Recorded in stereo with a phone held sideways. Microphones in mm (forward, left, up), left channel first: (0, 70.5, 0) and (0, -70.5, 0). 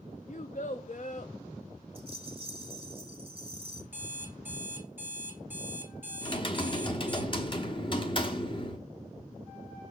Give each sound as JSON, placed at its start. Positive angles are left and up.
{"t": 0.3, "sound": "a child speaking", "side_deg": 60, "distance_m": 0.5}
{"t": 1.9, "sound": "a rattle", "side_deg": -40, "distance_m": 1.4}
{"t": 3.9, "sound": "an alarm clock", "side_deg": -15, "distance_m": 1.9}
{"t": 6.2, "sound": "typing on a keyboard", "side_deg": 35, "distance_m": 0.9}